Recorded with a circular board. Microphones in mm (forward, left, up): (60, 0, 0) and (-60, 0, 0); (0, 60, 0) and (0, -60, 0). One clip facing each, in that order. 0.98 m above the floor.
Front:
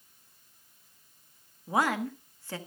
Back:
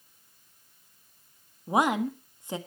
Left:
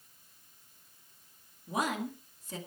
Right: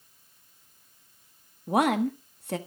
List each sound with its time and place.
1.7 s a woman speaking: 110° right, 1.5 m